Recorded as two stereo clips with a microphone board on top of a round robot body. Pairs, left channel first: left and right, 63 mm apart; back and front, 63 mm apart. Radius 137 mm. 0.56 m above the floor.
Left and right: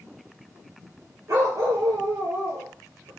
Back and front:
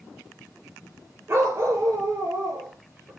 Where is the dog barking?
50° right, 4 m.